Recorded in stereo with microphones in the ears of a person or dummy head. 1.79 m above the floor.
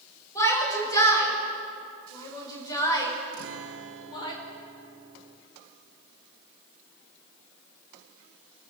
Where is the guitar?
65° right (ahead or behind), 1.8 m.